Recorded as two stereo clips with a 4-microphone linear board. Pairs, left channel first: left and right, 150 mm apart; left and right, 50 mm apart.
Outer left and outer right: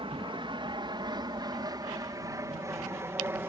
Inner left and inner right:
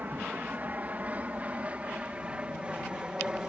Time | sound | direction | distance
0.0 | an aircraft | 35° right (ahead or behind) | ?